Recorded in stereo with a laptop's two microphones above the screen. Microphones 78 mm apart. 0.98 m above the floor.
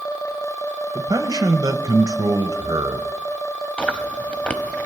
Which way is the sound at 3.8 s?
15° left (ahead or behind).